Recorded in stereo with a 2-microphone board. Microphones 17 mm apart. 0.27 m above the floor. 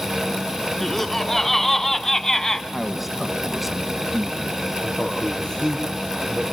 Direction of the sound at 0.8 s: 20° left (ahead or behind).